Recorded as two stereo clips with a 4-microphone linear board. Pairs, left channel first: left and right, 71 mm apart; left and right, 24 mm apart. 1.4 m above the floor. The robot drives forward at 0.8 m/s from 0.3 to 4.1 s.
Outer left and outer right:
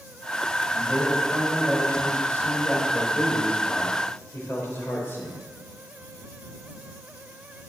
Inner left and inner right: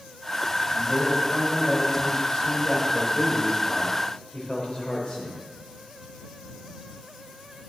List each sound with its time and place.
0.7 s a man speaking: 25° left (ahead or behind), 8 m; by 5.4 s 40° left (ahead or behind), 6 m